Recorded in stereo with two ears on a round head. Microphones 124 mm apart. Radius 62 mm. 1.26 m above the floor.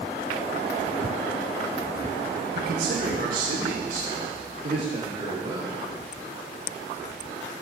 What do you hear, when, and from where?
2.5 s a man speaking: 75° right (ahead or behind), 1.6 m; by 5.8 s 40° right (ahead or behind), 4 m